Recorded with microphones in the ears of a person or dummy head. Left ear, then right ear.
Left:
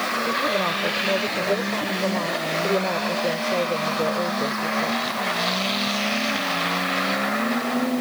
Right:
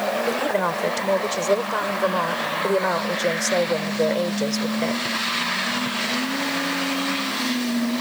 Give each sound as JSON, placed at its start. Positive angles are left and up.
{"t": 0.3, "sound": "a woman speaking", "side_deg": -65}